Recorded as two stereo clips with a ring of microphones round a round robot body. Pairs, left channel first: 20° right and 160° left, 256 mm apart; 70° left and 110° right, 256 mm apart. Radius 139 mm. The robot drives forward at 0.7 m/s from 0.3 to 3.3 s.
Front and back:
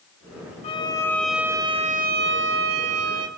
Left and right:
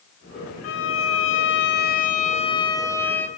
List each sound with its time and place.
0.6 s a violin: 40° left, 1.1 m; by 3.3 s 150° left, 1.4 m